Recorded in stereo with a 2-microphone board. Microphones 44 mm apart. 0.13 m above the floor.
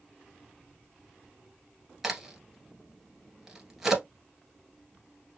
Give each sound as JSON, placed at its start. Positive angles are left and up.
{"t": 2.0, "sound": "a crack", "side_deg": -10, "distance_m": 1.5}